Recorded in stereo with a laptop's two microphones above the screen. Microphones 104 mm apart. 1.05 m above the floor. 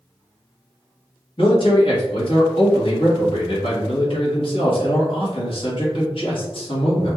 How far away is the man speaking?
About 1.2 m.